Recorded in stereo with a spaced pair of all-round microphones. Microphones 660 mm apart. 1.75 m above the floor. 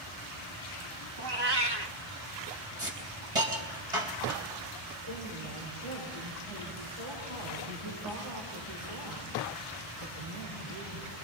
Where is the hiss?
55° right (ahead or behind), 4 m.